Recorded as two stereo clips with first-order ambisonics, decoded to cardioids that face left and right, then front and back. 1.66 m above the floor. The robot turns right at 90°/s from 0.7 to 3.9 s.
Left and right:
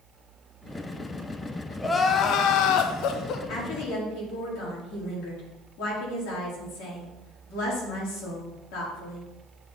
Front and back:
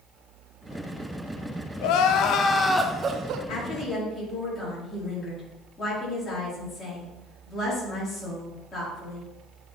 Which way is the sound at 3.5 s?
45° left.